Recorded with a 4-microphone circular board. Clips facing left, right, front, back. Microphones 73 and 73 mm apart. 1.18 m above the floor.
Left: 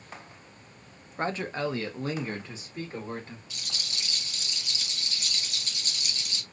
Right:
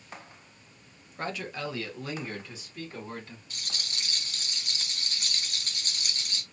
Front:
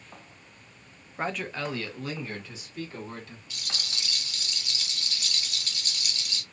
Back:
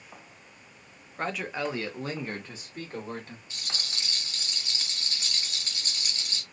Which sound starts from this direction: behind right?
A rattle, at 3.5 s.